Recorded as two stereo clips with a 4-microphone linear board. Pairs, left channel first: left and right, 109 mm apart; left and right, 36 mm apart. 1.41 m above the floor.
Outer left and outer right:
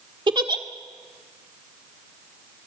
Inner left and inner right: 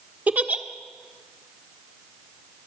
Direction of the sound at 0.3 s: 45° right (ahead or behind).